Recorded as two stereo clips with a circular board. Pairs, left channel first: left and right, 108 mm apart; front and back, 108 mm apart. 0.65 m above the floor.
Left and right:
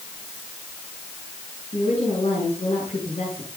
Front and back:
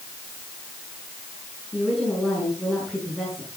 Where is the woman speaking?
95° left, 6.5 m.